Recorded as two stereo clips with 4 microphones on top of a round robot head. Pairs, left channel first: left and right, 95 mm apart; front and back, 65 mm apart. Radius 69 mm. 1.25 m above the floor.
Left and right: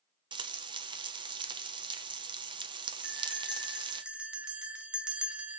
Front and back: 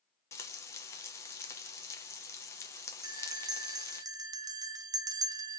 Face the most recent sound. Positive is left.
turn(degrees=-170)